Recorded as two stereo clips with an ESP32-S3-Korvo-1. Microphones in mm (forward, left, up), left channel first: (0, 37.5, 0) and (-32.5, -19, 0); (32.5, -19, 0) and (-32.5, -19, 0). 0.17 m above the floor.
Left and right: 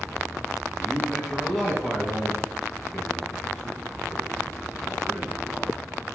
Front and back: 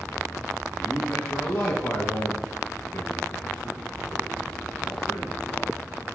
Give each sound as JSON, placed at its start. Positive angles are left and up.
{"t": 0.8, "sound": "a man speaking", "azimuth_deg": -45, "distance_m": 1.2}